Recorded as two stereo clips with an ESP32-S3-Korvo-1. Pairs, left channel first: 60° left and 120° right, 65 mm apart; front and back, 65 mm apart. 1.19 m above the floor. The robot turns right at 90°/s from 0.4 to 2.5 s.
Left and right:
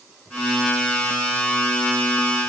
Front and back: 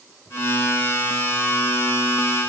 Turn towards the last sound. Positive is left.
No sound to turn to.